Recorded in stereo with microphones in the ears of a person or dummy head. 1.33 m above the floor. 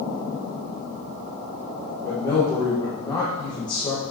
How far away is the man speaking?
About 1.4 m.